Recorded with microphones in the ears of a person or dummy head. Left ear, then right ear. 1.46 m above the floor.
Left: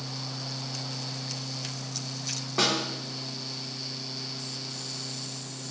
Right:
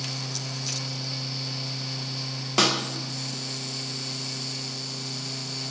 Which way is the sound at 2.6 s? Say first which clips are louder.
Right 4 dB; 80° right.